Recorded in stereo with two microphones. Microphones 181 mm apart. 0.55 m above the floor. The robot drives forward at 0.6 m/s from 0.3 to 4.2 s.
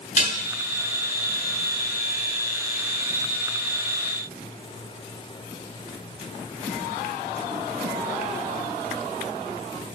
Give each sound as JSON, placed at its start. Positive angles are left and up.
{"t": 0.2, "sound": "dishes clattering", "side_deg": 45, "distance_m": 4.5}